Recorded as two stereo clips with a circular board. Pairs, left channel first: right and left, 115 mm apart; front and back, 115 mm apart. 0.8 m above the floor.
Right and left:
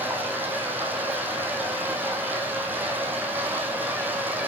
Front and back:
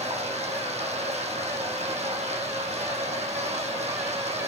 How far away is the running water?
About 3 m.